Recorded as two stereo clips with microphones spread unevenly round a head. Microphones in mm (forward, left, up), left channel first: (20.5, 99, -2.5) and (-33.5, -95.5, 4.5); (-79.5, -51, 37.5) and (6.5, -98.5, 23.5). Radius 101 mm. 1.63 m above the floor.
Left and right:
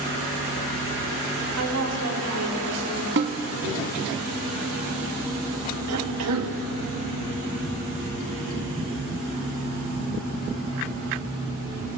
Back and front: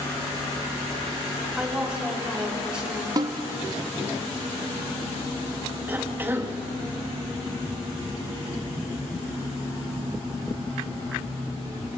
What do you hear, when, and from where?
1.6 s a woman speaking: 110° right, 5.5 m
3.2 s a snare drum: 75° right, 1.7 m
5.9 s a cough: 100° right, 2.5 m